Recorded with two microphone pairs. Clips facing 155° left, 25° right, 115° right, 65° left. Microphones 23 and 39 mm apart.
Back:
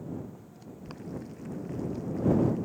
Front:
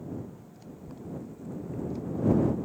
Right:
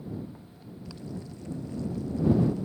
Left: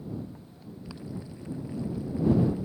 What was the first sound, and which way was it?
Boiling, 140° left.